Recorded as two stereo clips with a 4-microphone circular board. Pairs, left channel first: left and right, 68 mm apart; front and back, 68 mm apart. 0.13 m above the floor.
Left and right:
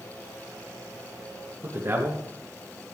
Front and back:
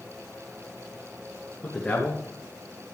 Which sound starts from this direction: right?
A man speaking, at 1.6 s.